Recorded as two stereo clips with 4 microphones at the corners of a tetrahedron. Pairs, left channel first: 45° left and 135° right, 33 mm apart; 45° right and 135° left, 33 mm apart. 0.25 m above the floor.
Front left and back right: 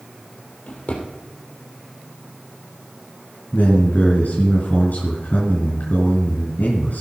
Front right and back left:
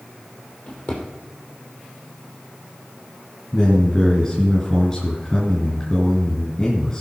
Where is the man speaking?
10° left, 3.5 m.